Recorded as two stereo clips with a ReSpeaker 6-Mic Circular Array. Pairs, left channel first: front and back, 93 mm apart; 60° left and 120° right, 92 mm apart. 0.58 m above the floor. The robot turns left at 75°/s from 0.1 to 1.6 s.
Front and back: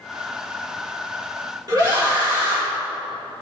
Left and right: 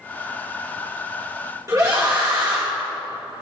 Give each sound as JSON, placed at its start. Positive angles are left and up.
{"t": 1.7, "sound": "a scream", "azimuth_deg": -155, "distance_m": 1.7}